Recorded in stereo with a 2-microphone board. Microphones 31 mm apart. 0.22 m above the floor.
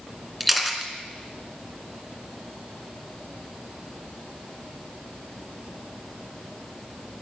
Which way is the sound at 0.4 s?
5° right (ahead or behind).